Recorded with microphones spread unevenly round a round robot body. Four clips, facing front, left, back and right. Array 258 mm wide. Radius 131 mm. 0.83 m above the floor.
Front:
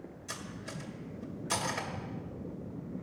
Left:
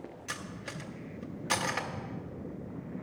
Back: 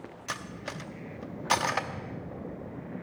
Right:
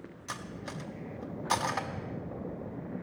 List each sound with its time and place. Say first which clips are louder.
0.3 s cutlery clinking: right 3 dB, back 6 dB; 165° left, 0.7 m